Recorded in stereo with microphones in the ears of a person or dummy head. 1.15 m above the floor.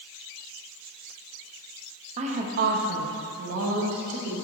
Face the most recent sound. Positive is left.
turn(degrees=-80)